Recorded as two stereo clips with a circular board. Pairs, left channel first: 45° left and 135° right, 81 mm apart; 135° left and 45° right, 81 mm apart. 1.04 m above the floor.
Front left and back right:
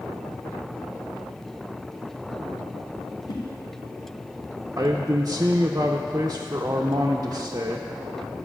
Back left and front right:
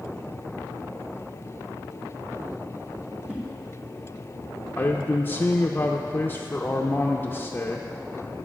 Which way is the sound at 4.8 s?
170° right.